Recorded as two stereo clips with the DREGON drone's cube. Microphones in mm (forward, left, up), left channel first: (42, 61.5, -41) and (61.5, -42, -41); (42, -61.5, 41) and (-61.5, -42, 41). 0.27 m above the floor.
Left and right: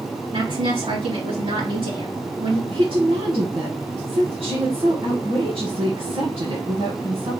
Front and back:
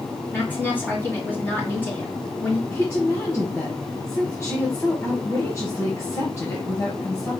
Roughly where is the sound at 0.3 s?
Right.